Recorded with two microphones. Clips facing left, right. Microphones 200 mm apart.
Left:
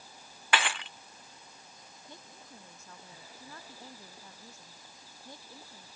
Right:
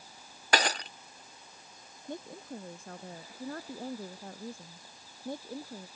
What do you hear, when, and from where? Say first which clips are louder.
0.5 s breaking glass: right 3 dB; 45° right (ahead or behind)
2.1 s a woman speaking: right 13 dB; 60° right (ahead or behind)